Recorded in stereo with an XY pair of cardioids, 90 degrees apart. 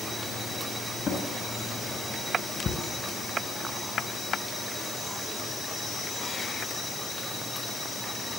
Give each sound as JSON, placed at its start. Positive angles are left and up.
{"t": 1.1, "sound": "a drawer", "azimuth_deg": 45, "distance_m": 5.5}